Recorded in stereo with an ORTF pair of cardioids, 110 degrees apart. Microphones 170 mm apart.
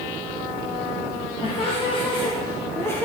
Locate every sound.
1.4 s laughter: 35° left, 2 m; by 3.1 s 10° left, 1.5 m